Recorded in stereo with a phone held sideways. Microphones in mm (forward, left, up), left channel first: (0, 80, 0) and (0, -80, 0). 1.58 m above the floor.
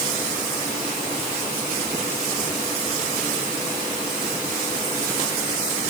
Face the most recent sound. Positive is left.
No sound to turn to.